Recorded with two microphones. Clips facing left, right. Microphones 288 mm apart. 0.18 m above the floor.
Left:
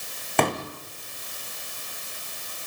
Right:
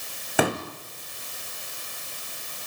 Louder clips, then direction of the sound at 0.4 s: Right 1 dB; 5° right (ahead or behind).